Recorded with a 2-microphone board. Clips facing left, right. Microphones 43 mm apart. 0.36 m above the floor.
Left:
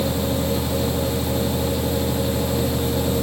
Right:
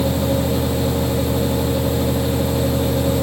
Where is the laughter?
No laughter in this recording.